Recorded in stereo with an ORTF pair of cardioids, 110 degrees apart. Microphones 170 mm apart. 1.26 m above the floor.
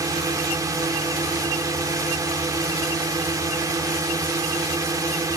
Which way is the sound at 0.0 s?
20° right.